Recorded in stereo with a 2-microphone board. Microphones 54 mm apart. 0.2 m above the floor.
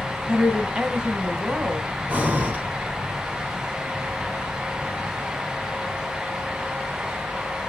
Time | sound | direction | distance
0.3 | a woman speaking | 20° right (ahead or behind) | 1.6 m
2.1 | breathing | 25° right (ahead or behind) | 1.6 m